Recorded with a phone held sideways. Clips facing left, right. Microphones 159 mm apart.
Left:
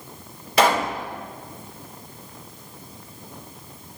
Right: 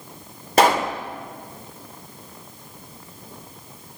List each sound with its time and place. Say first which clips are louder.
0.6 s a pop: right 2 dB; 45° right (ahead or behind), 2.5 m